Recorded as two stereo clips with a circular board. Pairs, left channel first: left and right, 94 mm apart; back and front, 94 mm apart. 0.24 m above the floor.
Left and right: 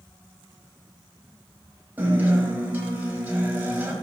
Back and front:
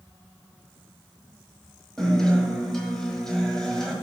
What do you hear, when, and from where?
2.0 s a guitar: 105° right, 1.5 m